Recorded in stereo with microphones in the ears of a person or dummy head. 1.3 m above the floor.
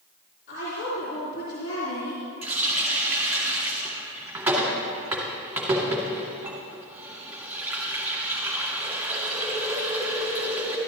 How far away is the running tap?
About 2 m.